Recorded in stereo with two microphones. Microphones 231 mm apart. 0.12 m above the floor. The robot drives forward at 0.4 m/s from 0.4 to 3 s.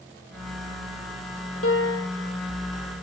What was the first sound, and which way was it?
A piano, 65° left (ahead or behind).